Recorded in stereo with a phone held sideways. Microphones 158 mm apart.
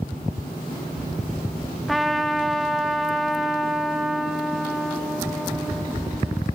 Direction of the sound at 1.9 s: Centre (ahead or behind).